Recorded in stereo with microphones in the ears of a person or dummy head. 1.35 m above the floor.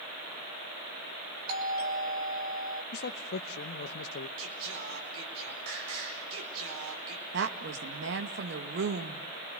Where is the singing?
75° right (ahead or behind), 4.5 m.